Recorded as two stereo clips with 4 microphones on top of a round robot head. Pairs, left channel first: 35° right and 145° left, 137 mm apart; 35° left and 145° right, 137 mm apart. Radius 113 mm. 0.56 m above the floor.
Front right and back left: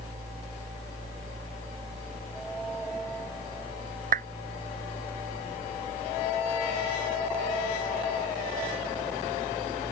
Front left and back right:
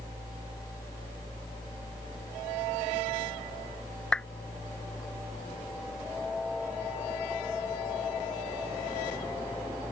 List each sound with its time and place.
4.1 s a clap: 120° left